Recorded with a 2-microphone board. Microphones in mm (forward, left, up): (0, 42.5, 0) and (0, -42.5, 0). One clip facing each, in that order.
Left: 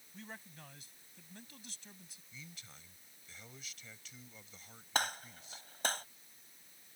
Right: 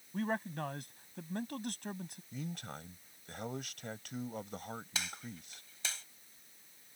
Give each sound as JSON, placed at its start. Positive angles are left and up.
{"t": 0.1, "sound": "a man speaking", "side_deg": -60}
{"t": 2.3, "sound": "a man speaking", "side_deg": -60}
{"t": 5.0, "sound": "a gunshot", "side_deg": 50}